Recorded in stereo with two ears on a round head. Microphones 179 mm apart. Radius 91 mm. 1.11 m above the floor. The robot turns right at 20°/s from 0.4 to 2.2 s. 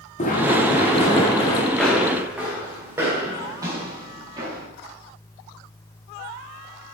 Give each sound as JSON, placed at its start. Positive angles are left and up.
{"t": 0.2, "sound": "running footsteps", "side_deg": 40, "distance_m": 4.0}
{"t": 1.7, "sound": "footsteps", "side_deg": 5, "distance_m": 6.5}